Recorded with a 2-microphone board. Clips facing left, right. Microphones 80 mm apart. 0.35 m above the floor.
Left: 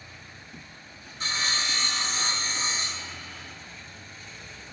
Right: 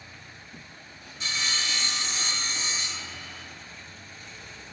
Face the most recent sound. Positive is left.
turn(degrees=40)  # may be behind; listen again after turning